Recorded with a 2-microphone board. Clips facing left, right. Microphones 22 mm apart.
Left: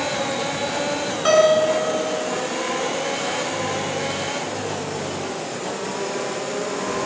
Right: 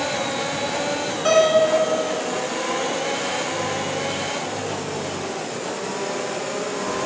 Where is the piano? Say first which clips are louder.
Even; 20° left (ahead or behind), 1.7 m.